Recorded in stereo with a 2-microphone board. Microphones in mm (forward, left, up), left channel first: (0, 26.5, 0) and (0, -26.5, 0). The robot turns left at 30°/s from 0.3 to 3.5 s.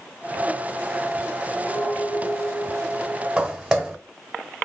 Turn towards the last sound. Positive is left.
turn(degrees=-10)  # may be behind; listen again after turning